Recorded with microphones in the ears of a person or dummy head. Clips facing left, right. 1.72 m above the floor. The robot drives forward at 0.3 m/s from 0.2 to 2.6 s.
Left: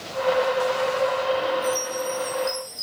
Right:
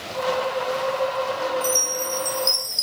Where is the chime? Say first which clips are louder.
Left 1 dB; 60° right (ahead or behind), 0.8 m; by 2.8 s 80° right, 0.7 m.